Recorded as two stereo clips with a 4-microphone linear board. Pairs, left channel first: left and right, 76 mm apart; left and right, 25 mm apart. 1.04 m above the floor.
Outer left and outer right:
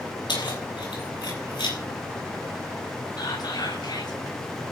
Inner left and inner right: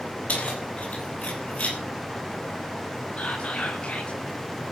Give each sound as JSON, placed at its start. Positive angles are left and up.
{"t": 0.3, "sound": "keys jangling", "side_deg": 90, "distance_m": 6.5}
{"t": 3.2, "sound": "whispering", "side_deg": 65, "distance_m": 6.0}